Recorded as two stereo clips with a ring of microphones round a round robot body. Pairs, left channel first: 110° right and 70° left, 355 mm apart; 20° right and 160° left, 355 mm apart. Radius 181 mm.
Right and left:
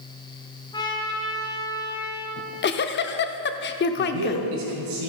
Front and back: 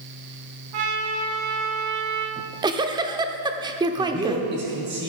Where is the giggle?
135° right, 0.6 m.